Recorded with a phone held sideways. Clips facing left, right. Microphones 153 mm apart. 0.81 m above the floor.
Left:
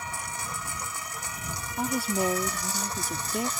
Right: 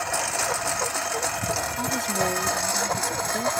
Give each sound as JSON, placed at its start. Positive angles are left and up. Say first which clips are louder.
{"t": 0.0, "sound": "a lawn mower", "louder": "right 10 dB", "side_deg": -80}
{"t": 1.8, "sound": "a woman speaking", "louder": "left 4 dB", "side_deg": 10}